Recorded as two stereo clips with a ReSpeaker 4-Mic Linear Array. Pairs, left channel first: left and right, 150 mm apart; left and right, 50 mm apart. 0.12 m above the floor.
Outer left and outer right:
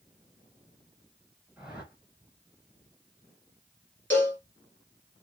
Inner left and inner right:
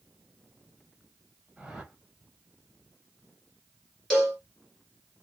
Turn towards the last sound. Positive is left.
turn(degrees=10)  # may be behind; listen again after turning